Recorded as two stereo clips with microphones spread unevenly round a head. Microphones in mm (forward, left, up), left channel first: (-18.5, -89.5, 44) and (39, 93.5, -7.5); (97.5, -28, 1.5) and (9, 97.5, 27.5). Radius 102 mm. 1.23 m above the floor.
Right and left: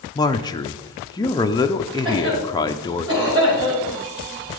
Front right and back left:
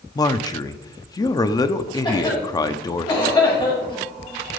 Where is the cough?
5° left, 6 m.